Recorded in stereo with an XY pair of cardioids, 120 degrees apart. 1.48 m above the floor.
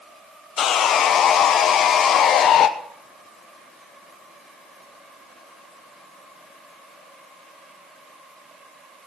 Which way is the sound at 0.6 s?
55° left.